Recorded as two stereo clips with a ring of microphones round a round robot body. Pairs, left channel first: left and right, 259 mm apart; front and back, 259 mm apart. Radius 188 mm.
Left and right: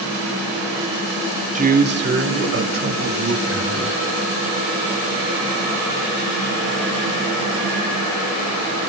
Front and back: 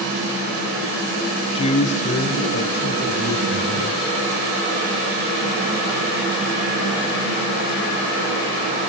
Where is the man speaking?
55° right, 1.4 m; by 4.0 s 60° right, 4.5 m.